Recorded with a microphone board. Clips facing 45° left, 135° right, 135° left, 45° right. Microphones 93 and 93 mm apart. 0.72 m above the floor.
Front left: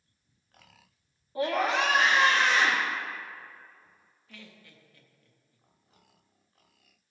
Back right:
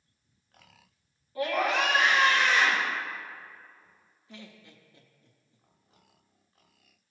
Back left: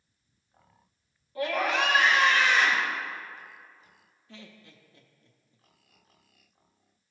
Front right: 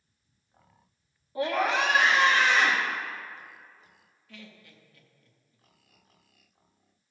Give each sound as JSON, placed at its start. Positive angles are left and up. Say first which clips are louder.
{"t": 1.4, "sound": "a scream", "louder": "even, front right 1 dB", "azimuth_deg": 5, "distance_m": 0.9}
{"t": 4.3, "sound": "laughter", "louder": "back right 3 dB, even", "azimuth_deg": 175, "distance_m": 0.7}